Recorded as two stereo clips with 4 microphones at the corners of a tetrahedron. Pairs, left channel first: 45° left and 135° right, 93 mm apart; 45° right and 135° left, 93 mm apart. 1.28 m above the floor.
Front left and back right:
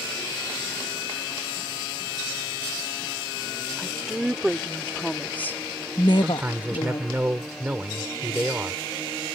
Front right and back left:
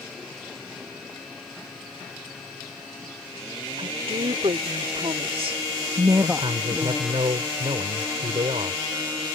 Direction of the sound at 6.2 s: 155° left.